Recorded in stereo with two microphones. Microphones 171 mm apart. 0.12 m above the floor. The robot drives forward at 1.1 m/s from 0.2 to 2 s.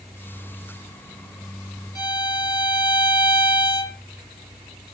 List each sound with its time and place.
1.9 s a violin: 25° left (ahead or behind), 1.9 m